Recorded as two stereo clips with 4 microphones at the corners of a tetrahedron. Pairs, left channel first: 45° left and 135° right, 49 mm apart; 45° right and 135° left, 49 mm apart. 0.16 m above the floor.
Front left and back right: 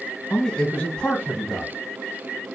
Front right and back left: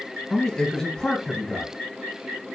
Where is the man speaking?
20° left, 1.6 m.